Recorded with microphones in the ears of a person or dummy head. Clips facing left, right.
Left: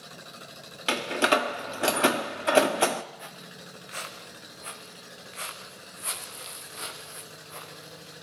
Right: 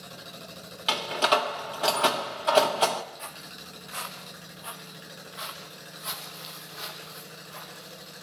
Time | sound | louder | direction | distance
0.9 | a door slam | left 1 dB | 25° left (ahead or behind) | 1.3 m
3.2 | footsteps | even | 10° left (ahead or behind) | 2.5 m